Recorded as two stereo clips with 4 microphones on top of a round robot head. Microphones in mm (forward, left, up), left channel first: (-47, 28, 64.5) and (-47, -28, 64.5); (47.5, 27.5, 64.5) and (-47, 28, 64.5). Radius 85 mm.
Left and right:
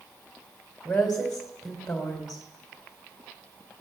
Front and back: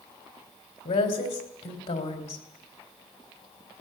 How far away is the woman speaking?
About 3.5 m.